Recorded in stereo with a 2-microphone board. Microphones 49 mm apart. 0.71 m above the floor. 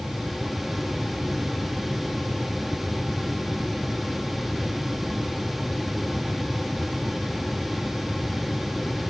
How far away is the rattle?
No rattle in this recording.